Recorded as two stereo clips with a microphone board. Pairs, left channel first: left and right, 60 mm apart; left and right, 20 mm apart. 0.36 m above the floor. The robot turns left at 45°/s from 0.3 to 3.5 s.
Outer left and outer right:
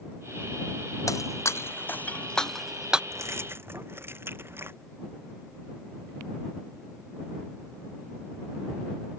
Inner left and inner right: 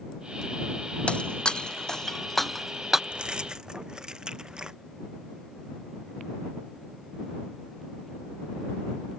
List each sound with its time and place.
1.1 s breaking glass: 70° left (ahead or behind); by 3.0 s 15° right (ahead or behind)
3.1 s keys jangling: 60° right (ahead or behind); by 4.8 s 45° right (ahead or behind)